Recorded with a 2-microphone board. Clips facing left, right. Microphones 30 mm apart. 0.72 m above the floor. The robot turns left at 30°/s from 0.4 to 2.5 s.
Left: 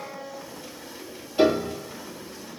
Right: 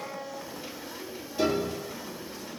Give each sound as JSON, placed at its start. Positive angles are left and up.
{"t": 1.4, "sound": "a piano", "side_deg": 35, "distance_m": 3.0}